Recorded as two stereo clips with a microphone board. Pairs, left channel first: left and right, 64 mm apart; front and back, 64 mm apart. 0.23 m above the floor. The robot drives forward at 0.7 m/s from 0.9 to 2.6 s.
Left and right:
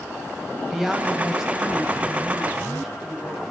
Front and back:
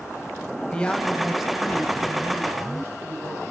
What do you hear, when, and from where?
0.7 s a woman speaking: 20° right, 0.9 m; by 3.4 s 175° right, 1.3 m